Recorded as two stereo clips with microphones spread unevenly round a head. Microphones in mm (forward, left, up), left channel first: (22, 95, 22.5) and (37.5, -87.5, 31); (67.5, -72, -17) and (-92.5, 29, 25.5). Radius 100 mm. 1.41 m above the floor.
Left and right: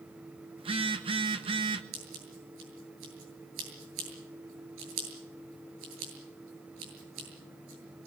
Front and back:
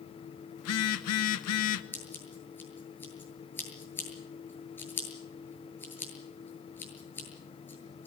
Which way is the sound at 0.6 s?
25° right.